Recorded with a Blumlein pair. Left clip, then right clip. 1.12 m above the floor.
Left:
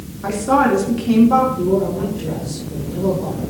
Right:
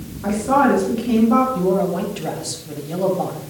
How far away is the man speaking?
About 5 m.